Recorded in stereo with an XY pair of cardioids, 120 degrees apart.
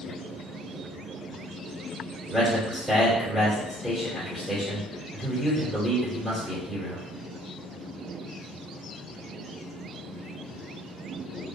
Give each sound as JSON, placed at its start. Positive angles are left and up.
{"t": 2.3, "sound": "a man speaking", "azimuth_deg": 0, "distance_m": 1.9}